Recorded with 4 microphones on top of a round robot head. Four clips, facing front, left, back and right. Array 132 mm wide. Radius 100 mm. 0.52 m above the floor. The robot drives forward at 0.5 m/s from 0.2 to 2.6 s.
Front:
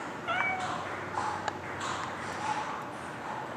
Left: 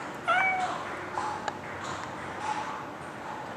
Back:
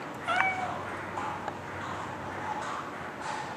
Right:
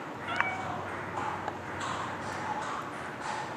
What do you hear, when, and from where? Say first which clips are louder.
0.3 s a cat meowing: left 7 dB, back 3 dB; 100° left, 1.6 m; by 0.8 s 105° left, 1.7 m